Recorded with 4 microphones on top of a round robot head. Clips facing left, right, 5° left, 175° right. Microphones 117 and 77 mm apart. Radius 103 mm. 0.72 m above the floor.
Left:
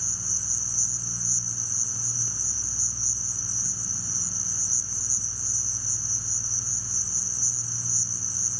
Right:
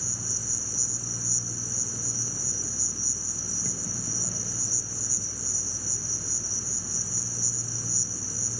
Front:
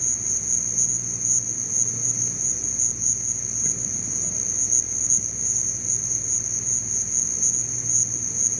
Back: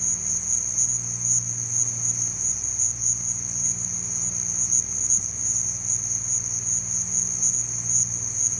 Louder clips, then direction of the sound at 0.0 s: Right 4 dB, front 2 dB; 55° right.